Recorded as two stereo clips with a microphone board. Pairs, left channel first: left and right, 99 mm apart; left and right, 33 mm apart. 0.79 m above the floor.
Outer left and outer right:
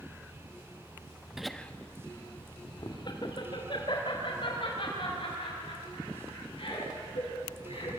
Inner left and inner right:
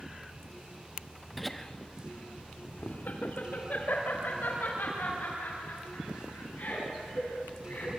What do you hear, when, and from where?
1.4 s laughter: 5° right (ahead or behind), 1.2 m; by 7.9 s 70° left (ahead or behind), 9.5 m